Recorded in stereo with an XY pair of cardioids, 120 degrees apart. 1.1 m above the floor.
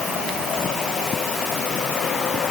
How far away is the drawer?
I don't hear a drawer.